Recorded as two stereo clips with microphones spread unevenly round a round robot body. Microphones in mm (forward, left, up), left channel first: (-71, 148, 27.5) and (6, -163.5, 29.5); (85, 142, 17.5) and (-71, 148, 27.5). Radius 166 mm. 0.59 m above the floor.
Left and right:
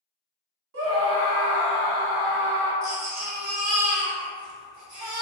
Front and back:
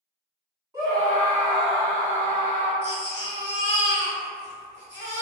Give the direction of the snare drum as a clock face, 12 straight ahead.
I don't hear a snare drum.